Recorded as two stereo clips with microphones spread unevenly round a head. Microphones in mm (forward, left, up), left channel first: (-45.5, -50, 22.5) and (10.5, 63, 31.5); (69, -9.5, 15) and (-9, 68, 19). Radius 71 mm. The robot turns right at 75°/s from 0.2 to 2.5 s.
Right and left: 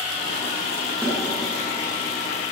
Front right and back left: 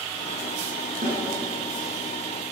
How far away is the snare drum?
About 9 m.